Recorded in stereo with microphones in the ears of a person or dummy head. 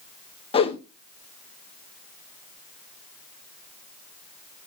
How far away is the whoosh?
About 0.9 m.